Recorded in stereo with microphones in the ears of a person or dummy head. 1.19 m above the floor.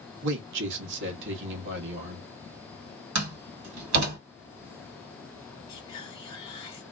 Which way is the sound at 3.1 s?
80° right.